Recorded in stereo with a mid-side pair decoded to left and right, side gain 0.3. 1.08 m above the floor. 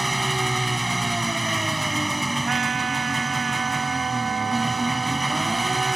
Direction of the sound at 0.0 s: 15° right.